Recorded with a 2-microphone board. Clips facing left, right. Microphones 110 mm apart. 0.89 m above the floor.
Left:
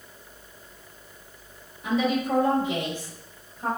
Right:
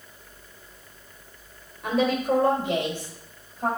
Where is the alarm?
I don't hear an alarm.